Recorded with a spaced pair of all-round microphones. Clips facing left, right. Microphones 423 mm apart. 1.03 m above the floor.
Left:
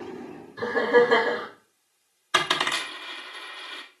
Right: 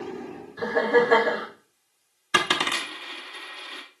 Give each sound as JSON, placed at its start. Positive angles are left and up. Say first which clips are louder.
{"t": 0.6, "sound": "laughter", "louder": "left 1 dB", "side_deg": 15, "distance_m": 2.0}
{"t": 2.3, "sound": "a dropped coin", "louder": "right 2 dB", "side_deg": -45, "distance_m": 0.7}